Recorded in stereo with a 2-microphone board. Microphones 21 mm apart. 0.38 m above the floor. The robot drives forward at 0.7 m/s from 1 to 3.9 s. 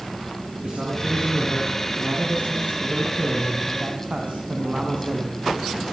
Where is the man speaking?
40° right (ahead or behind), 5.5 m; by 5.3 s 60° right (ahead or behind), 4 m.